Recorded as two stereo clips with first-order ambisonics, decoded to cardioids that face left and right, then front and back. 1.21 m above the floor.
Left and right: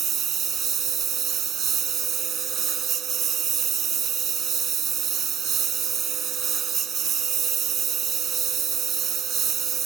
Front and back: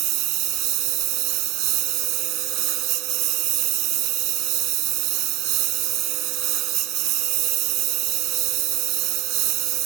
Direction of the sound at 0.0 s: 150° right.